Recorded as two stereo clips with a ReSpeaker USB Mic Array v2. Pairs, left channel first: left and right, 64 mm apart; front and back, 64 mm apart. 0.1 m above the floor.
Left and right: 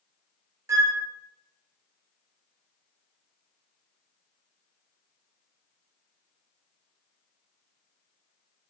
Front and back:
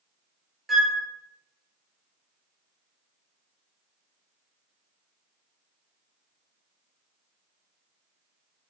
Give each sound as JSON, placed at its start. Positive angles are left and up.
{"t": 0.7, "sound": "a flute", "azimuth_deg": -95, "distance_m": 0.7}